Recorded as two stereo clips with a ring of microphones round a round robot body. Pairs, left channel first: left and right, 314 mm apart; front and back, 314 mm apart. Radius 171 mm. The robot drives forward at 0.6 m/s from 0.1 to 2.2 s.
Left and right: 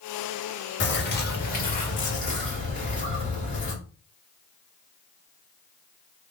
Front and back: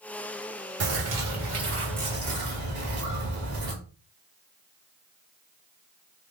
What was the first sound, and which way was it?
A bird, 140° left.